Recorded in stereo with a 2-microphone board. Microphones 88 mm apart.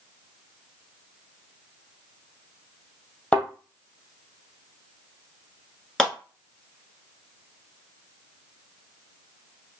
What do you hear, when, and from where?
3.3 s a thud: 15° left (ahead or behind), 1.7 m
6.0 s a clap: 10° left (ahead or behind), 1.4 m